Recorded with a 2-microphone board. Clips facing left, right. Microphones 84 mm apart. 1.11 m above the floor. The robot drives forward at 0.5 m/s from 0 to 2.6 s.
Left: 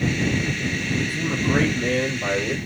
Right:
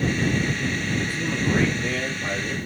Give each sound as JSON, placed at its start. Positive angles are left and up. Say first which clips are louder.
{"t": 0.9, "sound": "a man speaking", "louder": "left 1 dB", "side_deg": 55, "distance_m": 2.0}